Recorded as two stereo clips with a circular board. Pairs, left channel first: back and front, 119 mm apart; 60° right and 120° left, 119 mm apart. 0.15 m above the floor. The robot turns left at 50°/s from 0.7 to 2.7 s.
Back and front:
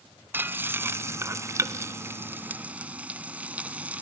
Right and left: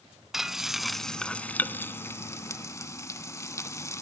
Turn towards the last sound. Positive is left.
turn(degrees=-60)